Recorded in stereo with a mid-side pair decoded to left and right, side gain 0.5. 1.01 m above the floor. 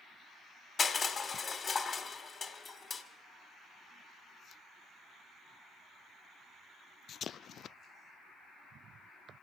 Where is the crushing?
40° left, 2 m.